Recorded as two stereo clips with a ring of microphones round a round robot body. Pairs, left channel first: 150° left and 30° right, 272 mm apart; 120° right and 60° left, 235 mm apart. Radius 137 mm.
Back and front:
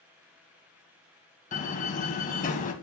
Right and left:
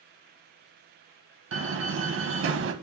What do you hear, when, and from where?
1.5 s a door slam: 90° left, 1.8 m